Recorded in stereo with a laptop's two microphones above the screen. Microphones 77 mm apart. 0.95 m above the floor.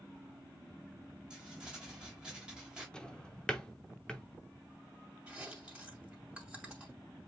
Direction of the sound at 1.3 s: 10° right (ahead or behind).